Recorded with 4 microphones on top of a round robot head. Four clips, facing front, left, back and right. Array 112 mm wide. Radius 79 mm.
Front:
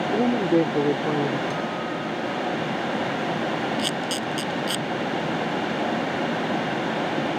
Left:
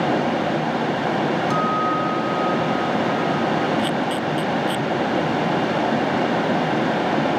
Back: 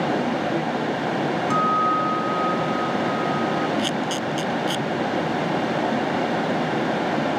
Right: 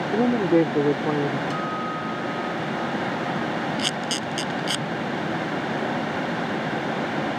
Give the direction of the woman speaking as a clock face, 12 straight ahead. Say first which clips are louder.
Right 2 dB, front 3 dB; 2 o'clock.